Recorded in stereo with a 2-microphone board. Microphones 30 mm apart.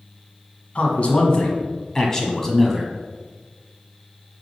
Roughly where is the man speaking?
Left.